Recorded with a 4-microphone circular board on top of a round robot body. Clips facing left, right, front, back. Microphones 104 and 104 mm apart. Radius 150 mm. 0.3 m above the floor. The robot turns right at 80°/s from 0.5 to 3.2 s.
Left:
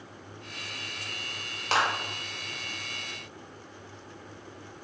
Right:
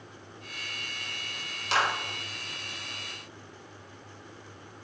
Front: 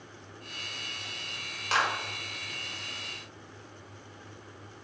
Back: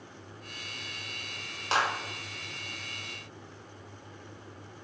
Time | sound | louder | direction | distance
1.7 | a clap | left 1 dB, even | 120° left | 2.5 m